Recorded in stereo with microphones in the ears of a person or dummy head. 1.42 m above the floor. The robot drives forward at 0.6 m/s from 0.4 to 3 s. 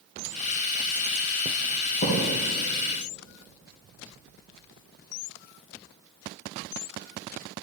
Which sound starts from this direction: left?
A thud, at 2.0 s.